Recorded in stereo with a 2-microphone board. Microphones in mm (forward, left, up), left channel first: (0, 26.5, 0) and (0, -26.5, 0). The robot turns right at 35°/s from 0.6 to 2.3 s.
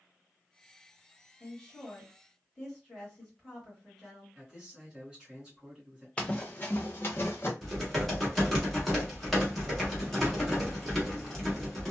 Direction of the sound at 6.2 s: 20° left (ahead or behind).